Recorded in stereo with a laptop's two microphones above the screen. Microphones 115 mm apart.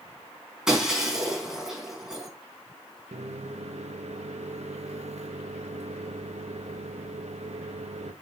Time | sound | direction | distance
0.7 | breaking glass | 5° right (ahead or behind) | 4 m
3.1 | a microwave | 75° right (ahead or behind) | 0.8 m